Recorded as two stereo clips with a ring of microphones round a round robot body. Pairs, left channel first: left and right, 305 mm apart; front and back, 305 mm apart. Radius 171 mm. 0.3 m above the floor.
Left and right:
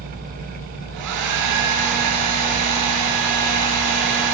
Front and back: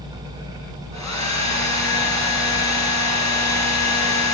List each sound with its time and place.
0.9 s a hair dryer: 35° right, 5 m